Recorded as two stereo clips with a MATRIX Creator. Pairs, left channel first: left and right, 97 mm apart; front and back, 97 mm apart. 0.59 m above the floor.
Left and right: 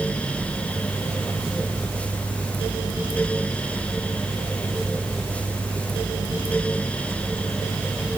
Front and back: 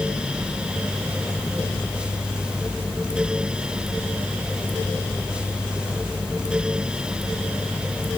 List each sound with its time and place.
Only background noise.